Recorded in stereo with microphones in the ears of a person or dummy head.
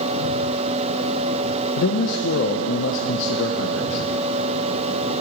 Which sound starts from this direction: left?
A man speaking, at 1.8 s.